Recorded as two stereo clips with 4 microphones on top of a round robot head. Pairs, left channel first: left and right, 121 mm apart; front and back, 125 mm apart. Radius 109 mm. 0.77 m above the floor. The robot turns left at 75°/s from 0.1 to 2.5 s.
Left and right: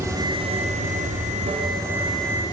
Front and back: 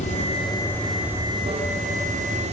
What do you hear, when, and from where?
0.0 s running water: 25° right, 2 m; by 2.5 s 155° left, 2 m